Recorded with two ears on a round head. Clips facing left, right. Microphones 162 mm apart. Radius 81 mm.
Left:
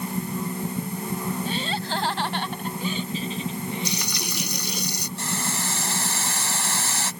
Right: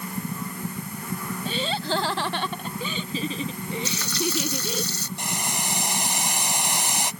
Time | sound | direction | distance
1.4 | laughter | 70° right (ahead or behind) | ?
3.9 | frying | 15° left (ahead or behind) | ?
5.2 | boiling | 15° right (ahead or behind) | ?